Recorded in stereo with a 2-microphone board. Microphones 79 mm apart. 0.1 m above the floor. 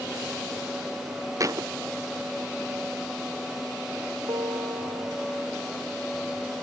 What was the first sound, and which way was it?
A thud, 45° right (ahead or behind).